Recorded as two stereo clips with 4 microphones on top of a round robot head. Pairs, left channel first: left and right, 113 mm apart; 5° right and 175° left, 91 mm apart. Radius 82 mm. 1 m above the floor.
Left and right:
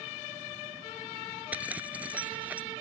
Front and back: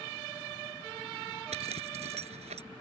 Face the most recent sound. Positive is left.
turn(degrees=-170)